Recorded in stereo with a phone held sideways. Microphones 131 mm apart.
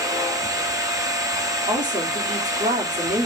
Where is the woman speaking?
65° right (ahead or behind), 2.5 m.